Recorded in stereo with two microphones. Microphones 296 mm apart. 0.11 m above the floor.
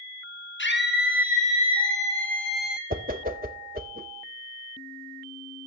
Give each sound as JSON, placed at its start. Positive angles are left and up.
{"t": 0.6, "sound": "a scream", "side_deg": 40, "distance_m": 2.5}
{"t": 2.9, "sound": "a whoosh", "side_deg": -30, "distance_m": 0.5}